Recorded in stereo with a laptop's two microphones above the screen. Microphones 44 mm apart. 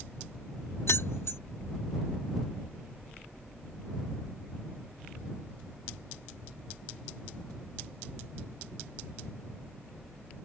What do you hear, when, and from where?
0.9 s keys jangling: 75° left (ahead or behind)